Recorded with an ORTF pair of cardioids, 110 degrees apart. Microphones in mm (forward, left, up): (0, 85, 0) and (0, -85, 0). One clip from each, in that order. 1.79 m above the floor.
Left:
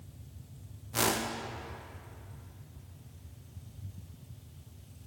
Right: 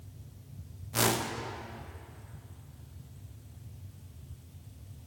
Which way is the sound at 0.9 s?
5° right.